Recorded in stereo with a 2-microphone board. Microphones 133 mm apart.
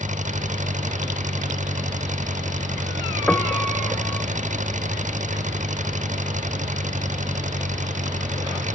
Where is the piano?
10° left (ahead or behind).